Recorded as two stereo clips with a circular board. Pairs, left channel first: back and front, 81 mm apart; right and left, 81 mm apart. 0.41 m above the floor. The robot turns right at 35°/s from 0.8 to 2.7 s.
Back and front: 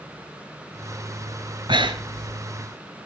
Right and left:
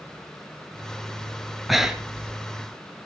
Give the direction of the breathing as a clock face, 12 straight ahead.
12 o'clock.